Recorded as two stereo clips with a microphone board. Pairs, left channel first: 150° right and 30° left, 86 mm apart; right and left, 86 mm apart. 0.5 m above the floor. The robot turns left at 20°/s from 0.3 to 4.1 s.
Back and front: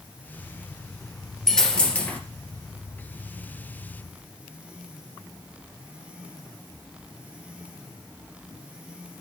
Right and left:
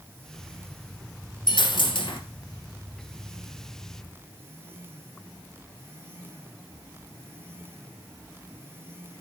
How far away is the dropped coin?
About 2.5 m.